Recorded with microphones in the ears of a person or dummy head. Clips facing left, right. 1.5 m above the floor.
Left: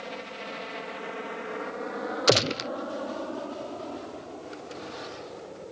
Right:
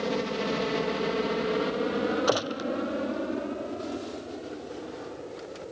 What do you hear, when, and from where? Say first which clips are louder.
0.0 s a helicopter: right 10 dB; 65° right (ahead or behind); by 5.7 s 10° right (ahead or behind)
2.3 s a gunshot: left 2 dB; 35° left (ahead or behind)